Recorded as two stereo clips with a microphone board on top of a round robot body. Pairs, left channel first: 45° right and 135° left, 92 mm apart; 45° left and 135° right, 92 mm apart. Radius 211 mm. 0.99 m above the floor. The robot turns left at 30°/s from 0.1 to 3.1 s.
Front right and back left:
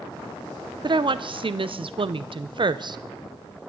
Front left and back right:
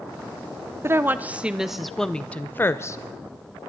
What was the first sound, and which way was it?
A woman speaking, 165° left.